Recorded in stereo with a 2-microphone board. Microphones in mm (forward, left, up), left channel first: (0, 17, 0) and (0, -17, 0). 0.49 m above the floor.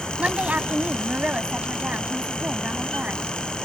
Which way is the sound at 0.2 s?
50° right (ahead or behind).